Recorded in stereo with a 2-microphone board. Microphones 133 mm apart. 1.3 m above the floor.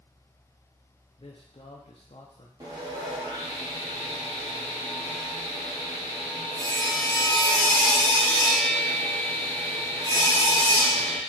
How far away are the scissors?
I don't hear scissors.